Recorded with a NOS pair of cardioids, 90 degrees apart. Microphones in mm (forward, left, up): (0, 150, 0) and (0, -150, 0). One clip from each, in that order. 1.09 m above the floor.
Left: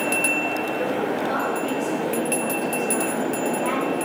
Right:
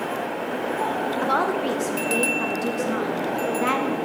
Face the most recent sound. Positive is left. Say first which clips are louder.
# right 2 dB
turn(degrees=-50)